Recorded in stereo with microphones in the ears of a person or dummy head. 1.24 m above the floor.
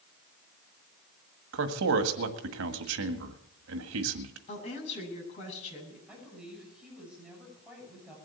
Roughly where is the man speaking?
Right.